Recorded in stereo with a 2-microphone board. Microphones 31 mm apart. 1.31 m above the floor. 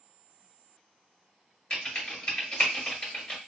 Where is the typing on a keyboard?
30° left (ahead or behind), 1.6 m.